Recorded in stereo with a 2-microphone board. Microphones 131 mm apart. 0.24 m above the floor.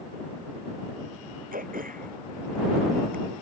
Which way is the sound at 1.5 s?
85° right.